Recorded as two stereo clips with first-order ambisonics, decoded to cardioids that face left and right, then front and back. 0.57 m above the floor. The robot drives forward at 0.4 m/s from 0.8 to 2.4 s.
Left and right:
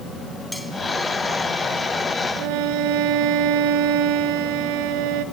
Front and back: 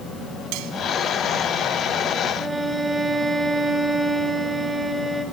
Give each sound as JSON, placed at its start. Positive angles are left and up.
{"t": 0.5, "sound": "cutlery clinking", "azimuth_deg": 175, "distance_m": 3.0}
{"t": 2.4, "sound": "a violin", "azimuth_deg": -100, "distance_m": 1.6}